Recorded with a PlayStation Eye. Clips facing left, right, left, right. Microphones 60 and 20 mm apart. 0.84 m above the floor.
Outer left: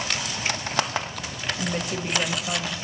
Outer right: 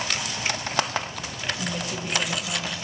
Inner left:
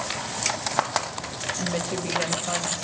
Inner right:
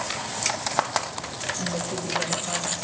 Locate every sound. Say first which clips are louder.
1.6 s a woman speaking: outer left 2 dB, inner left 1 dB; 45° left (ahead or behind), 5 m